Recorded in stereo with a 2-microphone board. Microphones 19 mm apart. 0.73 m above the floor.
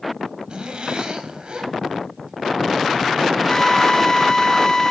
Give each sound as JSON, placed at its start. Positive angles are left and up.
{"t": 0.5, "sound": "a zipper", "side_deg": -60, "distance_m": 3.5}
{"t": 3.5, "sound": "a drill", "side_deg": 20, "distance_m": 5.5}